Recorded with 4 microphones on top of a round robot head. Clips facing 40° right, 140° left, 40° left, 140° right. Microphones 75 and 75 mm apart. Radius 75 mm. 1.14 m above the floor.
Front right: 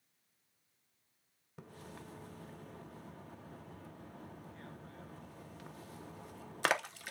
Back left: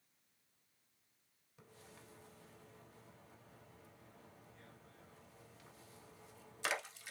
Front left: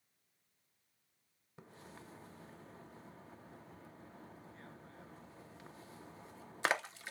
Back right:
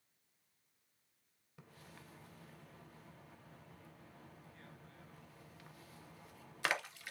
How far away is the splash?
About 0.7 m.